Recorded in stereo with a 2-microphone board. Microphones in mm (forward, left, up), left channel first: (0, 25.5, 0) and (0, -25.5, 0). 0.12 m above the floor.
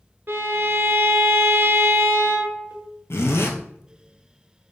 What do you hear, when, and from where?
0.3 s a violin: 40° right (ahead or behind), 0.7 m
3.1 s a zipper: 60° left (ahead or behind), 0.7 m